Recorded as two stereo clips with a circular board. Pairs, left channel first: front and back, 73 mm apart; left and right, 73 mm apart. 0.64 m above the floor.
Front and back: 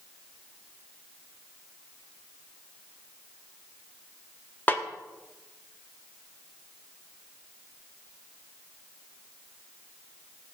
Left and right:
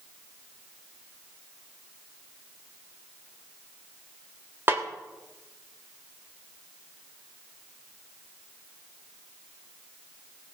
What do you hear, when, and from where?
4.7 s a snare drum: 50° right, 1.2 m